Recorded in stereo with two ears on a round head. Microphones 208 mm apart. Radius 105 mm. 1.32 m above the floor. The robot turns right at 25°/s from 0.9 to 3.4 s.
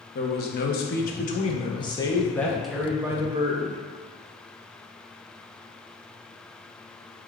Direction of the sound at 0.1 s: 135° left.